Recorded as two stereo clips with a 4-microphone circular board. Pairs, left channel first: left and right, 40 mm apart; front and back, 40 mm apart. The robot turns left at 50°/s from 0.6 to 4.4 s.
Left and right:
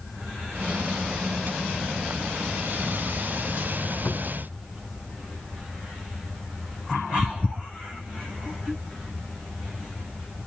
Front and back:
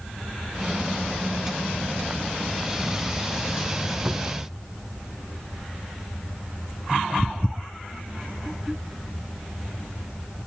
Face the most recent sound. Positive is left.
turn(degrees=115)